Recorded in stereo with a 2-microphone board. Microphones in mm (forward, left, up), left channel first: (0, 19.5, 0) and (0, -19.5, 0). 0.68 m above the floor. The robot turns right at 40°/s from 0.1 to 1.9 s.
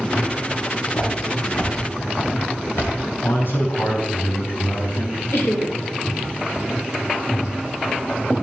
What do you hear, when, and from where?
0.9 s footsteps: 65° left (ahead or behind), 6 m; by 2.9 s 80° left, 3.5 m
3.2 s a man speaking: 60° left (ahead or behind), 5.5 m
5.3 s laughter: 65° left (ahead or behind), 2.5 m